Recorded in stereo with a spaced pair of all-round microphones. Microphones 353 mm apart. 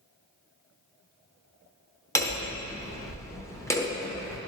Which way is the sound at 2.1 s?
10° left (ahead or behind).